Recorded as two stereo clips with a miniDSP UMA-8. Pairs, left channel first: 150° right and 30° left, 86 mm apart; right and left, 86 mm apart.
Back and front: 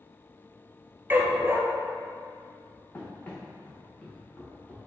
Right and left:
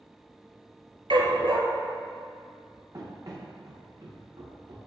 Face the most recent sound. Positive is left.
turn(degrees=130)